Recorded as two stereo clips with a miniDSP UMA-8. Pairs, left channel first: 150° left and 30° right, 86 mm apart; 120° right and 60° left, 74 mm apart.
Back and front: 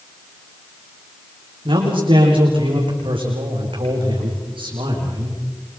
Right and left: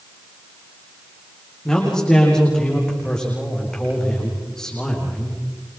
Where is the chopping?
I don't hear chopping.